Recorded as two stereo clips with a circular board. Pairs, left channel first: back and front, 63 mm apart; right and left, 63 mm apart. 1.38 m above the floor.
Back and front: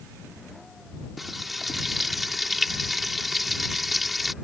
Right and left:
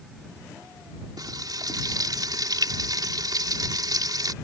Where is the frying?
90° left.